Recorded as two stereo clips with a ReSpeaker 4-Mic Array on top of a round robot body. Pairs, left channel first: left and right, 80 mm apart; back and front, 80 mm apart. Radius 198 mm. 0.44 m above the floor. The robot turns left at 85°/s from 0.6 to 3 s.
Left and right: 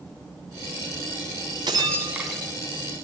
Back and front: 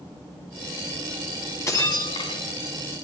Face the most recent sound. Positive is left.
turn(degrees=120)